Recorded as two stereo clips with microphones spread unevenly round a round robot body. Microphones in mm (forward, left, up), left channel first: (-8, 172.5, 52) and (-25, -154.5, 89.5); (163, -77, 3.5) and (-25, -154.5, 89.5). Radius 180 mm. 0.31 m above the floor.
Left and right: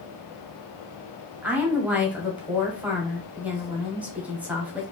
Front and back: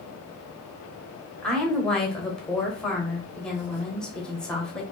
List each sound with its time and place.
1.4 s a woman speaking: straight ahead, 1.1 m